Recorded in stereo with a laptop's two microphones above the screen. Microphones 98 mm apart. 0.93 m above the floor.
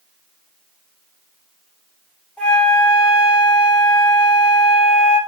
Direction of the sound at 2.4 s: 5° left (ahead or behind).